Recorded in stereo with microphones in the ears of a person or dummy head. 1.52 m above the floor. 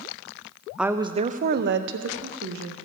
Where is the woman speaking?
Centre (ahead or behind), 0.5 m; by 2.8 s 85° right, 1.2 m.